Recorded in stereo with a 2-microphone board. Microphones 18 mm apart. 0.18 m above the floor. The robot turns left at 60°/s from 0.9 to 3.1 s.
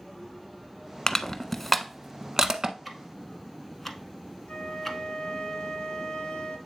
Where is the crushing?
35° left (ahead or behind), 0.6 m; by 2.8 s 45° right (ahead or behind), 0.6 m.